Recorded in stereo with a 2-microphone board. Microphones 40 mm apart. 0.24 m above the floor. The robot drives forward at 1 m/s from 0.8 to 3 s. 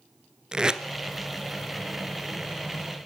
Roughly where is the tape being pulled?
Centre.